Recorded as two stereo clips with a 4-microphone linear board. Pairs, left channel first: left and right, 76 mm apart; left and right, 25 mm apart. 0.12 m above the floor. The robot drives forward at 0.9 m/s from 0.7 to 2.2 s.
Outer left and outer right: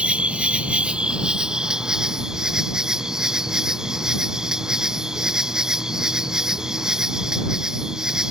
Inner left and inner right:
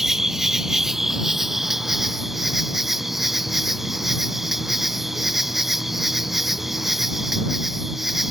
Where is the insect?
15° right (ahead or behind); by 8.3 s 10° right (ahead or behind).